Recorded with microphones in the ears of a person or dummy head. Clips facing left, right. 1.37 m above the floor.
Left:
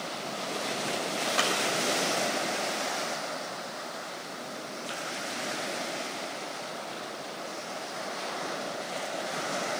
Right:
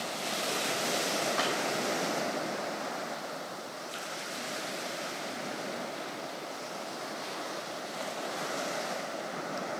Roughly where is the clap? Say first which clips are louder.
Left 2 dB; left.